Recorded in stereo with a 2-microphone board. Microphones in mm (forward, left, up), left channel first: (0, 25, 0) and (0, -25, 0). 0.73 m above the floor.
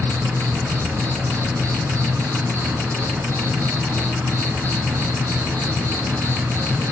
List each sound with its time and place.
0.0 s an insect: 75° right (ahead or behind), 1.5 m